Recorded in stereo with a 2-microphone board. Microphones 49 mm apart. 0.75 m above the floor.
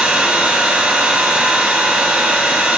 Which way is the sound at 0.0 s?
30° right (ahead or behind).